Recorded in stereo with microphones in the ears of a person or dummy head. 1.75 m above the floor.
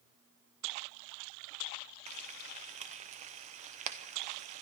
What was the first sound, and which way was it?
Frying, 35° right (ahead or behind).